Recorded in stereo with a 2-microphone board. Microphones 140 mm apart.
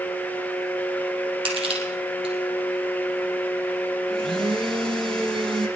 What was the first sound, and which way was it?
Crushing, 40° right (ahead or behind).